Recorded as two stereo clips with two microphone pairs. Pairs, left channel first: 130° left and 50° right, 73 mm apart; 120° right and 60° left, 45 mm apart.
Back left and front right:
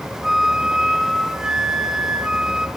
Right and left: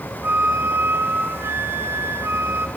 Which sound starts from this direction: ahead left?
A flute, at 0.2 s.